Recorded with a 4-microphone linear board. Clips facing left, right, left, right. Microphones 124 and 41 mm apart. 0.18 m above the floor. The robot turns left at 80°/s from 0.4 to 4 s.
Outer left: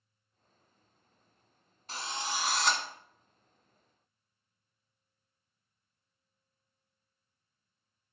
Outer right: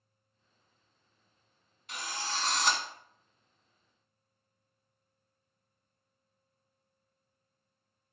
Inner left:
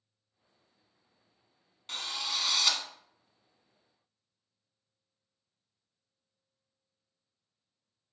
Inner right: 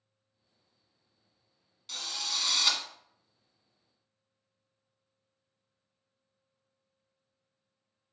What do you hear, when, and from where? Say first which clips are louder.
1.9 s a drill: outer left 1 dB, inner left 1 dB; 60° left, 1.2 m; by 2.8 s 15° right, 1.2 m